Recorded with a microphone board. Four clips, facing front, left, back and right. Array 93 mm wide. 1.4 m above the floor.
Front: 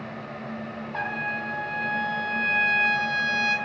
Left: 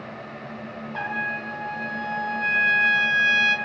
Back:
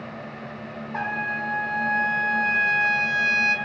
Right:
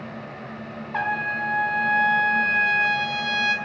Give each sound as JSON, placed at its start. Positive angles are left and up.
{"t": 0.9, "sound": "a trumpet", "azimuth_deg": -100, "distance_m": 0.5}